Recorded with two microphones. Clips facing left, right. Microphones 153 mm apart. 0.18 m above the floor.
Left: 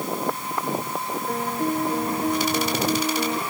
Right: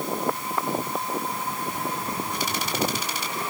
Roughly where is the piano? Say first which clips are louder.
Left 6 dB; left.